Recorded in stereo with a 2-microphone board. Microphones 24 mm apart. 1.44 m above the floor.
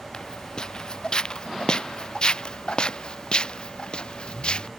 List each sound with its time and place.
0.1 s footsteps: 35° left (ahead or behind); by 4.7 s 45° left (ahead or behind)